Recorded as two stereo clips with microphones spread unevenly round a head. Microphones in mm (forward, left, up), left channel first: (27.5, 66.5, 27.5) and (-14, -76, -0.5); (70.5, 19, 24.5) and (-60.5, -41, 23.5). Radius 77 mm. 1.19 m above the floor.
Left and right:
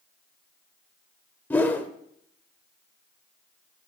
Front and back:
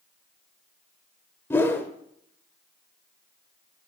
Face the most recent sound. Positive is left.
turn(degrees=75)